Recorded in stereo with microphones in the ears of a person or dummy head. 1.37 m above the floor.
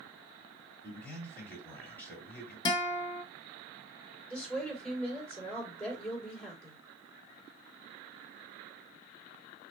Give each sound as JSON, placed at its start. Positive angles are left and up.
{"t": 0.8, "sound": "a man speaking", "side_deg": 10, "distance_m": 3.5}
{"t": 2.6, "sound": "a guitar", "side_deg": 30, "distance_m": 1.0}
{"t": 4.3, "sound": "a woman speaking", "side_deg": 5, "distance_m": 3.5}